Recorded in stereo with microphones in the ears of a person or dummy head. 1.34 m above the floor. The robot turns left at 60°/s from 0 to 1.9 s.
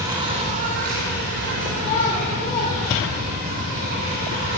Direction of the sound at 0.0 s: 20° right.